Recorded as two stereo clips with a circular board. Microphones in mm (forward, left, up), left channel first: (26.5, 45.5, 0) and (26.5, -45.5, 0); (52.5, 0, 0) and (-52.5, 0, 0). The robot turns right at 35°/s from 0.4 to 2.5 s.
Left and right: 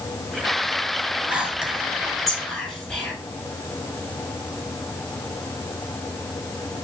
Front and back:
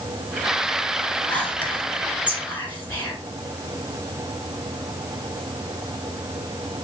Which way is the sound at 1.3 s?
35° right.